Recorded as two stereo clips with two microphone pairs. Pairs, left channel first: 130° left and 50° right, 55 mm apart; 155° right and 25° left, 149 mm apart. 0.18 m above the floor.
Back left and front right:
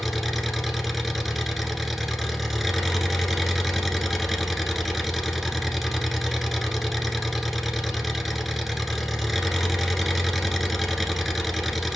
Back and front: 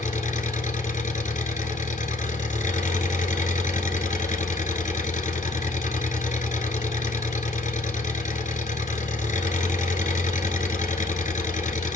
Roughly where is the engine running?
Behind right.